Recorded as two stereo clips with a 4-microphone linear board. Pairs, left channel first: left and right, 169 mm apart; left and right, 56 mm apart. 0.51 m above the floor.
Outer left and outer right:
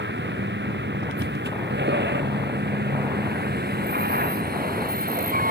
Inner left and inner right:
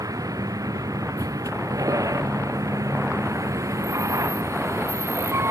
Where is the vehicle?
90° right; by 5.5 s 55° right (ahead or behind).